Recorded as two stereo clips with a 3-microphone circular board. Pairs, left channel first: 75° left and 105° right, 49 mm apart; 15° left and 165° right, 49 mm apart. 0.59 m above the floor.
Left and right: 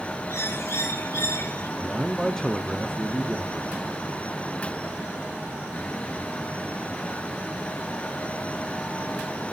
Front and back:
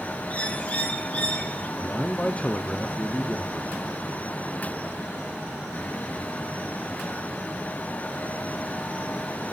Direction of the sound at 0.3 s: 75° left.